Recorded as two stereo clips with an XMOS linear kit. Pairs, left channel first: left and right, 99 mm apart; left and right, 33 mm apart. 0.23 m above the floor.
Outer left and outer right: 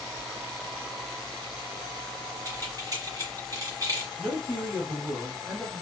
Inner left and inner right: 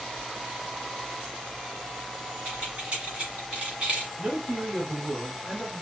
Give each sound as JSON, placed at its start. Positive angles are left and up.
{"t": 2.5, "sound": "keys jangling", "side_deg": -40, "distance_m": 1.5}
{"t": 4.2, "sound": "a man speaking", "side_deg": -10, "distance_m": 1.5}